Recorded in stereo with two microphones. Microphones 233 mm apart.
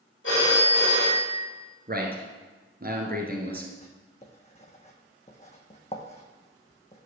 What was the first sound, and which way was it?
A phone ringing, 55° left (ahead or behind).